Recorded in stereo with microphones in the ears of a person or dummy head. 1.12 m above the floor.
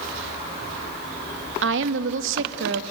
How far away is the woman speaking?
About 1.5 m.